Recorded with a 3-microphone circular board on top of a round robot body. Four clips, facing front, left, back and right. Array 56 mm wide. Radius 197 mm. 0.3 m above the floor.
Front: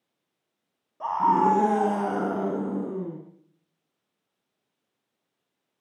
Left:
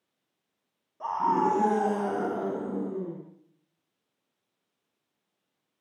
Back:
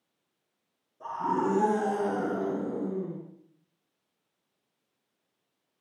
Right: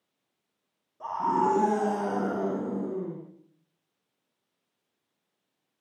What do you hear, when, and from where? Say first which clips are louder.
1.0 s a scream: left 1 dB, front 8 dB; 15° left, 5 m; by 3.2 s 10° right, 7 m